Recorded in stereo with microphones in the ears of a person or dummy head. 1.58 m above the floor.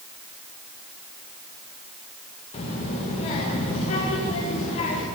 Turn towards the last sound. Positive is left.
turn(degrees=35)  # may be behind; listen again after turning